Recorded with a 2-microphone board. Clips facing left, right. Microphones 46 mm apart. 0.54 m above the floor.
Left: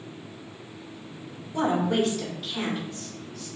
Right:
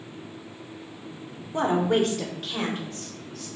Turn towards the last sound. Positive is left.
turn(degrees=-60)  # may be behind; listen again after turning